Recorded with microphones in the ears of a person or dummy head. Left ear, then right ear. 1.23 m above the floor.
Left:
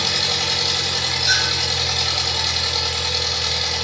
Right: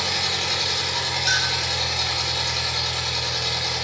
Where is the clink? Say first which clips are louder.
Left 3 dB; 30° right (ahead or behind), 1.1 m.